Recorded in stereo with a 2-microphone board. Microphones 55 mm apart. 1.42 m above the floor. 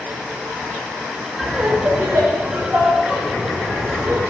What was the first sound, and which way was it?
Laughter, 10° right (ahead or behind).